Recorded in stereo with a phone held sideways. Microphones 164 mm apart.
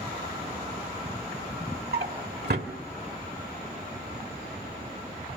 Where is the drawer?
80° right, 1.5 m.